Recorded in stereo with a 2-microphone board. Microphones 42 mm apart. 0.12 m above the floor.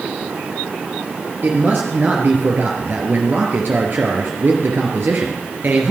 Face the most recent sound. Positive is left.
turn(degrees=-50)  # may be behind; listen again after turning